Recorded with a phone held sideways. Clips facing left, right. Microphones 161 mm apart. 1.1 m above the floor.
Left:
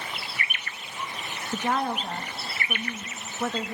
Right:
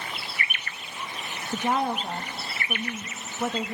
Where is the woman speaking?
10° right (ahead or behind), 1.1 m.